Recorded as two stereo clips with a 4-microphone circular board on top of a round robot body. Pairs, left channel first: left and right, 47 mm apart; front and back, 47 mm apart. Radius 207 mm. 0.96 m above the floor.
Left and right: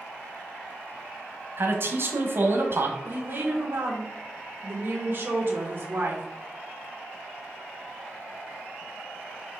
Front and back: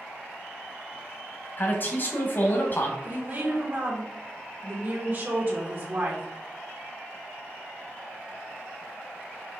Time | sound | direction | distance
1.6 | a man speaking | 50° right | 1.0 m
3.0 | a woman speaking | 135° right | 1.3 m